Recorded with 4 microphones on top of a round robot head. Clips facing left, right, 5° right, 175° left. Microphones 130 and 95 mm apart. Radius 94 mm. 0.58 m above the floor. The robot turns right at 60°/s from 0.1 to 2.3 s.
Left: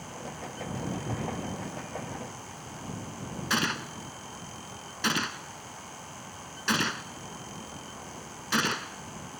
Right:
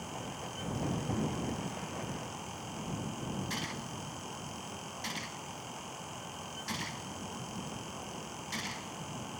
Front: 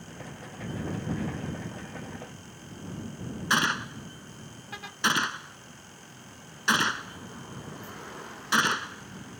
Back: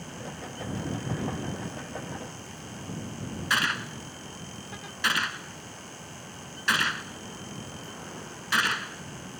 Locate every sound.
3.5 s a gunshot: 55° left